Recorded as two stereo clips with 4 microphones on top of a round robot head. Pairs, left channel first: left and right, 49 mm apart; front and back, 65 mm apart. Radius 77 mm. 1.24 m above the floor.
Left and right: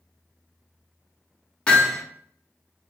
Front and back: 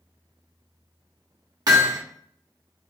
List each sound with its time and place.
1.7 s hammering: 160° left, 1.3 m